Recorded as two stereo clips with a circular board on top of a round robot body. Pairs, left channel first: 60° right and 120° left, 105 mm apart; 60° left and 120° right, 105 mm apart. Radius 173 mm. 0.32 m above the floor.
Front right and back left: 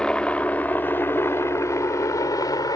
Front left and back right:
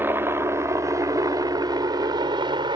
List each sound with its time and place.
0.0 s a helicopter: 130° right; by 2.8 s 100° right